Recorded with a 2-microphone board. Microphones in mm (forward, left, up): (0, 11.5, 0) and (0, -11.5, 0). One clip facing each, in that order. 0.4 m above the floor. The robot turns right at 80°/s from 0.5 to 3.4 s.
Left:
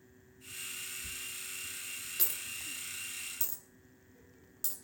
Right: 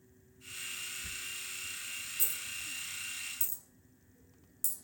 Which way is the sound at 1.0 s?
40° right (ahead or behind).